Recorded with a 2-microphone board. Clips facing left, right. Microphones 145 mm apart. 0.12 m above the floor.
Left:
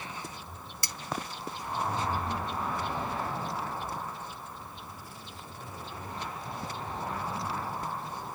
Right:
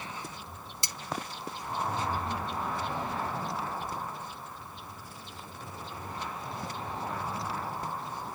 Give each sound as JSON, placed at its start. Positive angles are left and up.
{"t": 0.8, "sound": "cutlery clinking", "side_deg": -20, "distance_m": 0.7}